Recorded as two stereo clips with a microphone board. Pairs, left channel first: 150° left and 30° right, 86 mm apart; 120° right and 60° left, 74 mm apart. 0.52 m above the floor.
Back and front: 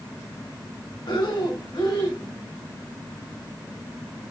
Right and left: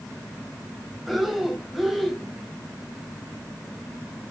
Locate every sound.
1.1 s breathing: 150° left, 1.7 m